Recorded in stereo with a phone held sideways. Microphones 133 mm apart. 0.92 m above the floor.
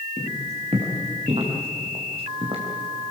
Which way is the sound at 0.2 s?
50° right (ahead or behind).